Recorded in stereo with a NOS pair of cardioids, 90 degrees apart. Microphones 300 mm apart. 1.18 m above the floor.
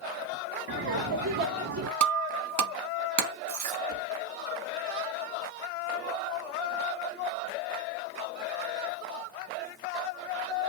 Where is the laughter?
50° right, 0.9 m.